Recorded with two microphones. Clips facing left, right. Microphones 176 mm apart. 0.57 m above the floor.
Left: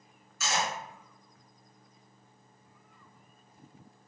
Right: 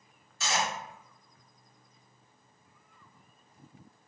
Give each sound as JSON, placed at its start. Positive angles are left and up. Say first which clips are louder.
{"t": 0.4, "sound": "cutlery clinking", "louder": "even", "side_deg": -30, "distance_m": 1.8}